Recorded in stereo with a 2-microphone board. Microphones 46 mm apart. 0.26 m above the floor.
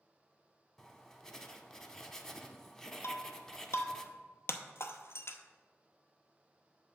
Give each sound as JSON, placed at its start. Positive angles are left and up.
{"t": 0.8, "sound": "writing", "side_deg": 10, "distance_m": 0.6}
{"t": 3.0, "sound": "breaking glass", "side_deg": 65, "distance_m": 0.6}